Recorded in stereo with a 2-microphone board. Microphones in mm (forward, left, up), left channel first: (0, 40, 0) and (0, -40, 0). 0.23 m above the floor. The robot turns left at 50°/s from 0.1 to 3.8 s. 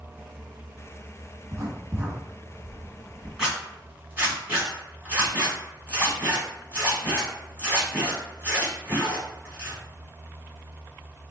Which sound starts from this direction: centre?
A zipper, at 3.4 s.